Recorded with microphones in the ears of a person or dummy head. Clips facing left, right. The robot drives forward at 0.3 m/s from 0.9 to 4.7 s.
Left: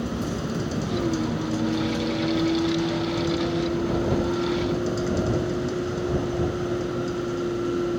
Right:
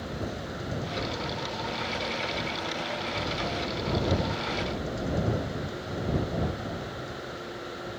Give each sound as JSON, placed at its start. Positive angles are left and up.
{"t": 0.0, "sound": "a vehicle", "side_deg": 75}